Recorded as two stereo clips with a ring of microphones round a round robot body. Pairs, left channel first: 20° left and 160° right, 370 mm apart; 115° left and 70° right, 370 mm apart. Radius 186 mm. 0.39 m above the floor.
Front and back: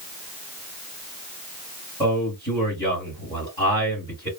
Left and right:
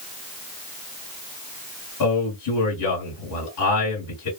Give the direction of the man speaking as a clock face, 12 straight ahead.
9 o'clock.